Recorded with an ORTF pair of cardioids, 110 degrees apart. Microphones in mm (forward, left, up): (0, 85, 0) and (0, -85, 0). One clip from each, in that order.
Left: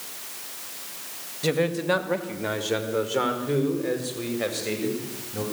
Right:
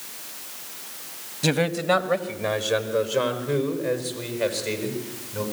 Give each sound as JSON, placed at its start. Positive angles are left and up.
{"t": 1.4, "sound": "a man speaking", "azimuth_deg": -25, "distance_m": 1.7}